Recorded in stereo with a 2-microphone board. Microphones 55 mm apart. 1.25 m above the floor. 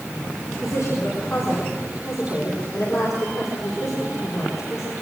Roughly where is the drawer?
No drawer in this recording.